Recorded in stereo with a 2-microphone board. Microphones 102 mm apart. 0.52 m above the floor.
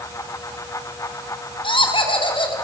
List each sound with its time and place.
1.6 s laughter: 55° left (ahead or behind), 4.5 m